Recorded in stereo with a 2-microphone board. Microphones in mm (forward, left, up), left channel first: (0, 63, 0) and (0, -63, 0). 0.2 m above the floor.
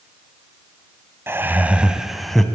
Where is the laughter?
20° right (ahead or behind), 1.0 m; by 2.4 s 5° left (ahead or behind), 1.1 m.